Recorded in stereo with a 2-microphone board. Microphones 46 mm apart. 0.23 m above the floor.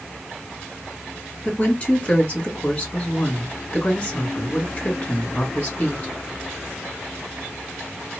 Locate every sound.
1.4 s a woman speaking: 25° left (ahead or behind), 2 m